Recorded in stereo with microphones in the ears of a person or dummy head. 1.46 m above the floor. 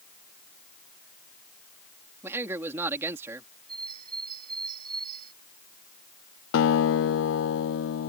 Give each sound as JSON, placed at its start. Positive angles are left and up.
{"t": 2.2, "sound": "a man speaking", "side_deg": -10}
{"t": 3.7, "sound": "a bird", "side_deg": -45}
{"t": 6.5, "sound": "a guitar", "side_deg": 70}